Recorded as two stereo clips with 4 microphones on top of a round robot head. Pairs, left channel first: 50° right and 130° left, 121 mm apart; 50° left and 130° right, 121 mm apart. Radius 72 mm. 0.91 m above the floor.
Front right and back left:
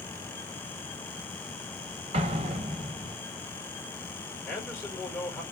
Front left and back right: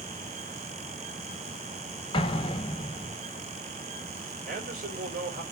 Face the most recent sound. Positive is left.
turn(degrees=-125)